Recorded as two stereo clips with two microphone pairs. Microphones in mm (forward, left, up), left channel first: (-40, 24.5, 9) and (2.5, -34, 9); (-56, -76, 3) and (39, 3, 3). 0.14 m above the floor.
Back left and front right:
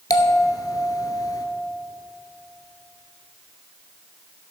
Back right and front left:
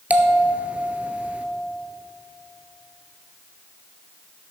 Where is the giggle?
No giggle in this recording.